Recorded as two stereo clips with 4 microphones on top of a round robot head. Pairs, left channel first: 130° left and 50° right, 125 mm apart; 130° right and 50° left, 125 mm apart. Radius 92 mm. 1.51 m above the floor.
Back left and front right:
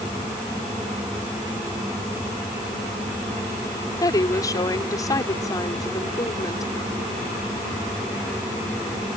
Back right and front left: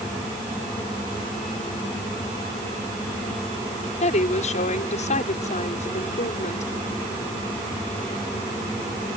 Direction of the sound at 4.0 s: 165° right.